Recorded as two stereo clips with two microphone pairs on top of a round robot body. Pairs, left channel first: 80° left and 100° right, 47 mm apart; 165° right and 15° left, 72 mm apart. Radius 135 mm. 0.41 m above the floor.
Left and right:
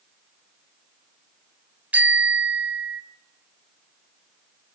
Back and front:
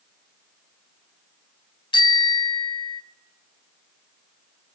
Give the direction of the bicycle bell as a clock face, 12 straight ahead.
5 o'clock.